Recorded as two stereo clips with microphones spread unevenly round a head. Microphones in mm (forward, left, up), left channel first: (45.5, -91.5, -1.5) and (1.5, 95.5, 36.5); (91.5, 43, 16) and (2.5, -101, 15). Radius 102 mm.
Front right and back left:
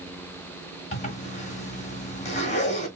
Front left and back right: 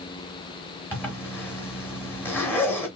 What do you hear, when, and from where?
0.9 s a zipper: 20° right, 1.7 m